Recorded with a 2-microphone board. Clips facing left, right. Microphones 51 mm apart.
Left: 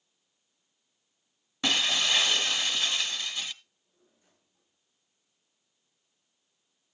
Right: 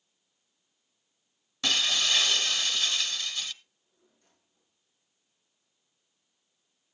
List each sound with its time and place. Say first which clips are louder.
1.6 s breaking glass: left 1 dB; 20° left (ahead or behind), 0.7 m
3.6 s a drawer: even; 10° left (ahead or behind), 9.5 m